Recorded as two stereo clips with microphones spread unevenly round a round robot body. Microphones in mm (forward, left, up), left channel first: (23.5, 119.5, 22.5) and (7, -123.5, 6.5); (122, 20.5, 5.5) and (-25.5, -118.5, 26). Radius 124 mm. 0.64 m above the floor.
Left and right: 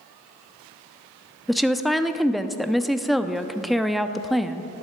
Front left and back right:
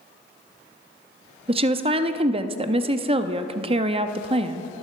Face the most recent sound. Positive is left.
turn(degrees=-175)